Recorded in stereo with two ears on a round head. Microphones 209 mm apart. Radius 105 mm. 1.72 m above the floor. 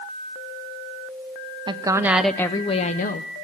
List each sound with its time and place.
1.7 s a woman speaking: 20° right (ahead or behind), 0.7 m; by 3.3 s 40° left (ahead or behind), 0.8 m